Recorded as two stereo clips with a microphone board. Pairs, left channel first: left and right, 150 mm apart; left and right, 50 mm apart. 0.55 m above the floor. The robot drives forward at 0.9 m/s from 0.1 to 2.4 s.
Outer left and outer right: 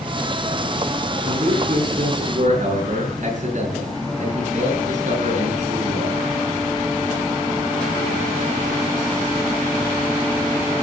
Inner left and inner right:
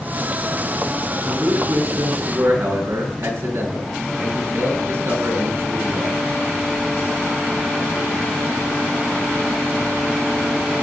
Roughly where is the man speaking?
Right.